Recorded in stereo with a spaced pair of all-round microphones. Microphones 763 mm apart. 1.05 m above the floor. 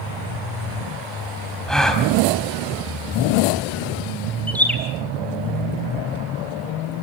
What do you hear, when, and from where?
1.7 s a gasp: centre (ahead or behind), 3.5 m
4.5 s a bird: centre (ahead or behind), 3.5 m